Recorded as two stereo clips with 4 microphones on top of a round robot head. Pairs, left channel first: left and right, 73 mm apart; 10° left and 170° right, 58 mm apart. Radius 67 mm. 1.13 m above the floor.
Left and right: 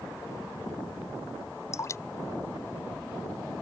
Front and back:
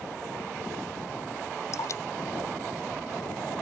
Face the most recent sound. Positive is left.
turn(degrees=40)